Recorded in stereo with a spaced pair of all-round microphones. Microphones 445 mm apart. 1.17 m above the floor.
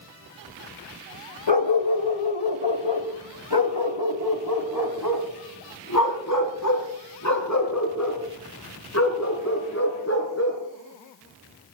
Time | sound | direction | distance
1.5 | a dog barking | 70° left (ahead or behind) | 1.8 m